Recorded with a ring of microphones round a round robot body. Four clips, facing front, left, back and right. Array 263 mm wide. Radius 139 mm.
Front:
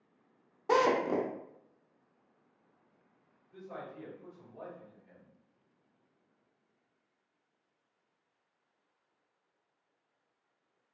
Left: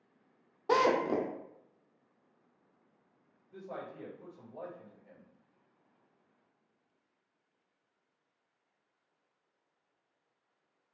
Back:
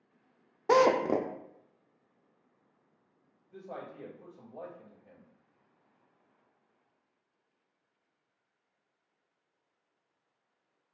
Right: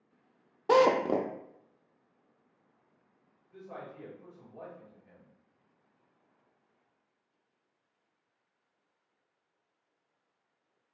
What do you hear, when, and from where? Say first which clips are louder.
0.7 s a drill: right 4 dB, back 3 dB; 145° right, 0.6 m
3.5 s a man speaking: left 1 dB, back 1 dB; 135° left, 2 m